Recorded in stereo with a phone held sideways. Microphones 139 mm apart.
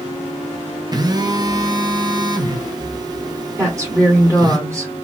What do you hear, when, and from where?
0.9 s a phone buzzing: 30° right (ahead or behind), 0.5 m
3.6 s a woman speaking: 25° right (ahead or behind), 1.2 m